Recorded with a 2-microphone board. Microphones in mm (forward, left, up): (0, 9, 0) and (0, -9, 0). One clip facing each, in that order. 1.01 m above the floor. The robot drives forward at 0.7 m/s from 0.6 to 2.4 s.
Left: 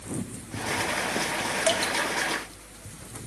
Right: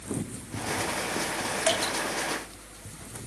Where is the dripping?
15° left (ahead or behind), 2.5 m.